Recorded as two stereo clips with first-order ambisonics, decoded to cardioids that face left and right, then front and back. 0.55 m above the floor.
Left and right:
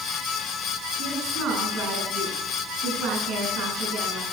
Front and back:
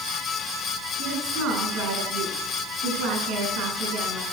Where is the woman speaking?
140° right, 6 m.